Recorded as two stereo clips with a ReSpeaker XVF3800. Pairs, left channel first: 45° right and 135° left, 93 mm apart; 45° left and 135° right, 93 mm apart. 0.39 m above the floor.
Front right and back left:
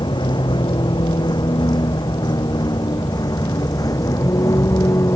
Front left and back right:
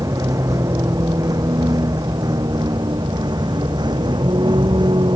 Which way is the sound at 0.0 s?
80° right.